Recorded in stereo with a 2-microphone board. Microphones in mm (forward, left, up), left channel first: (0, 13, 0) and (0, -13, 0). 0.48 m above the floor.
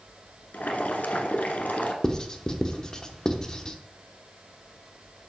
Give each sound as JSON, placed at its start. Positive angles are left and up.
{"t": 0.5, "sound": "boiling", "side_deg": 75, "distance_m": 1.0}
{"t": 2.0, "sound": "writing", "side_deg": 30, "distance_m": 0.7}